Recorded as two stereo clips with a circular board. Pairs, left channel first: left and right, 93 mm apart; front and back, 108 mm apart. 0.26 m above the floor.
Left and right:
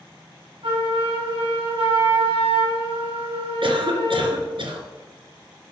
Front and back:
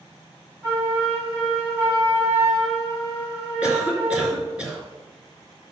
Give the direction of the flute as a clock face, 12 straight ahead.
4 o'clock.